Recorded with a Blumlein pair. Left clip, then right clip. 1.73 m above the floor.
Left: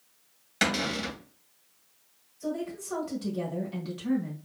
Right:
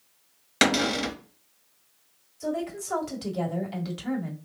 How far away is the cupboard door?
About 1.0 m.